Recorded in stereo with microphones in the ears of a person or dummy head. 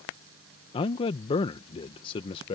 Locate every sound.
0.7 s a man speaking: 25° left (ahead or behind)